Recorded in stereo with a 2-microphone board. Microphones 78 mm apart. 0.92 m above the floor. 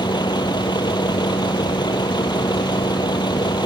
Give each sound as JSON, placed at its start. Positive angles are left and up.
{"t": 0.0, "sound": "a vehicle", "side_deg": 70}